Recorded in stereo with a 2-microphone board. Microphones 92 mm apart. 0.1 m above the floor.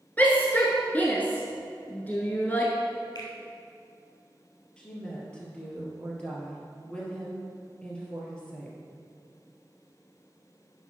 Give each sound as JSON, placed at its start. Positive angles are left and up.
{"t": 0.2, "sound": "a shout", "side_deg": 20, "distance_m": 1.1}
{"t": 3.1, "sound": "a finger snap", "side_deg": 55, "distance_m": 2.5}
{"t": 4.8, "sound": "a woman speaking", "side_deg": 15, "distance_m": 2.5}